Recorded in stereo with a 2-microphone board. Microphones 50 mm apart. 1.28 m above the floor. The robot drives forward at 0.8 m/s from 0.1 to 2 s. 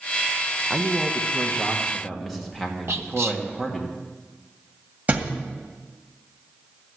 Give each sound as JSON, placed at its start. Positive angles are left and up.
{"t": 0.7, "sound": "a man speaking", "side_deg": -5, "distance_m": 0.8}
{"t": 2.9, "sound": "whispering", "side_deg": -65, "distance_m": 1.4}
{"t": 5.1, "sound": "a thud", "side_deg": -30, "distance_m": 1.9}